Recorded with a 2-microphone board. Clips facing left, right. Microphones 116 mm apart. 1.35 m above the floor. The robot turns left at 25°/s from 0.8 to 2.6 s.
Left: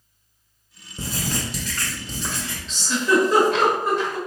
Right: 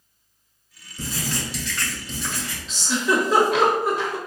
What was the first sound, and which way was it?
Writing, 75° left.